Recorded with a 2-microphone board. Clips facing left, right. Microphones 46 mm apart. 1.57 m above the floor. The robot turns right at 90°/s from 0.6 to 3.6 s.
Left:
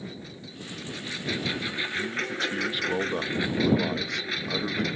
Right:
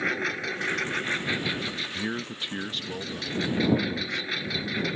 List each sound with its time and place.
0.0 s a lawn mower: 90° right; by 5.0 s straight behind
1.9 s a man speaking: 65° right; by 4.8 s 85° left